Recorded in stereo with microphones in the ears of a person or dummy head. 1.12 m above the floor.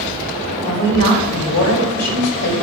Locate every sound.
0.6 s a woman speaking: 85° left, 4.5 m